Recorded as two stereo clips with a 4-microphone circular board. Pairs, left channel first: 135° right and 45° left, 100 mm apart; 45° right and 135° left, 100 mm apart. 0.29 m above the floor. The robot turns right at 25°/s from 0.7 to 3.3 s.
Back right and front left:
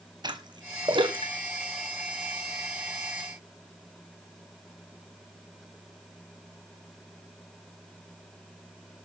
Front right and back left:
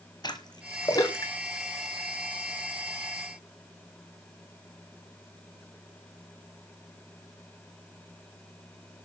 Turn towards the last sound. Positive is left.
turn(degrees=65)